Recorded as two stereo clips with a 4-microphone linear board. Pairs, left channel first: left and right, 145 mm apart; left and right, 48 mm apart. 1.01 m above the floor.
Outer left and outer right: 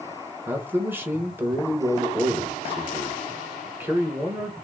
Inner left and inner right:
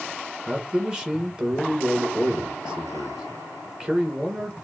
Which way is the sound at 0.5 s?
15° right (ahead or behind).